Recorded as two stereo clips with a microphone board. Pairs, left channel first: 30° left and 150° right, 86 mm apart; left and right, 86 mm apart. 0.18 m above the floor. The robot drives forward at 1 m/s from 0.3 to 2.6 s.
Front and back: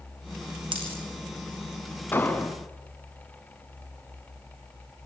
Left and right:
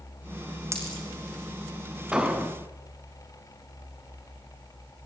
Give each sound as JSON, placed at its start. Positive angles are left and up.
{"t": 0.7, "sound": "a dropped coin", "azimuth_deg": -145, "distance_m": 3.5}
{"t": 2.1, "sound": "an explosion", "azimuth_deg": -15, "distance_m": 1.8}